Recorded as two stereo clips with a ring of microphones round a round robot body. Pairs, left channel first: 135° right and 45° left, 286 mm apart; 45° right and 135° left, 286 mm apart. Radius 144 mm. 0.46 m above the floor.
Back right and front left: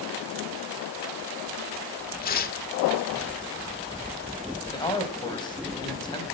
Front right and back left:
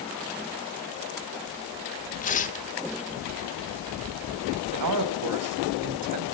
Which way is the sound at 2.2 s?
95° right.